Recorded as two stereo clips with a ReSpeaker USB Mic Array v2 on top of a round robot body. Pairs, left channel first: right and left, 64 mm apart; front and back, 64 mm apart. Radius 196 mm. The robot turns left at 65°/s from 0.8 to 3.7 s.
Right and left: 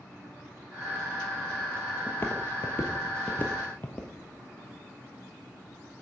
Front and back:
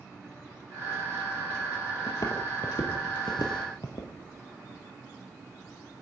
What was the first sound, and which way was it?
Footsteps, 25° right.